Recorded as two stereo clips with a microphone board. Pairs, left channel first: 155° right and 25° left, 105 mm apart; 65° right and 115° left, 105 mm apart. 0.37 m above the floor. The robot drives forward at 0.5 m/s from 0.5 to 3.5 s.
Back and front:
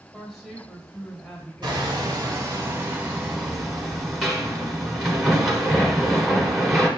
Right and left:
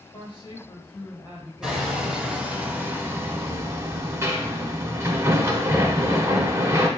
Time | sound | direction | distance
0.1 | a woman speaking | 70° right | 1.8 m
1.6 | hammering | 25° left | 1.3 m